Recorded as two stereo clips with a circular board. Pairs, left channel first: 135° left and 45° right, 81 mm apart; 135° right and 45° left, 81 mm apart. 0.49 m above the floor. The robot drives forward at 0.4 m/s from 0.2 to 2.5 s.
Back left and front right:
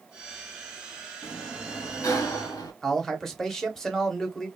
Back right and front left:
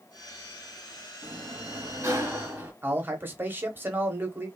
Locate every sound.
1.2 s a sliding door: 75° left, 0.9 m; by 2.7 s 110° left, 0.9 m
2.8 s a man speaking: 60° left, 0.8 m